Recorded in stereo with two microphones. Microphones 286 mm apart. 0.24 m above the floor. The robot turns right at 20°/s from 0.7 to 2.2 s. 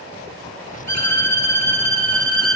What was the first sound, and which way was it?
A violin, 80° left.